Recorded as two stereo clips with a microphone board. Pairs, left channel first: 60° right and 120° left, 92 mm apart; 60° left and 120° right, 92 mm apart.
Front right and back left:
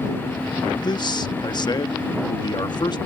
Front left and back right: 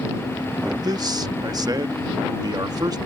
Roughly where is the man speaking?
Right.